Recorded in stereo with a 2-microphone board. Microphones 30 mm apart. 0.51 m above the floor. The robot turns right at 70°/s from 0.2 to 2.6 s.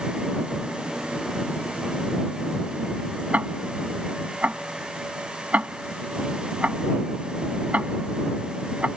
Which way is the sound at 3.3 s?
55° right (ahead or behind).